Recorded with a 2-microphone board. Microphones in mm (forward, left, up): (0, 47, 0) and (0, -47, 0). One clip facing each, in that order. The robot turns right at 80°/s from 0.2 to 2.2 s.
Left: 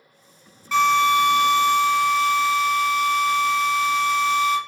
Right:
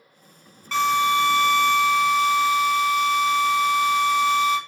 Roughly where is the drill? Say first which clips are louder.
Left 3 dB; behind.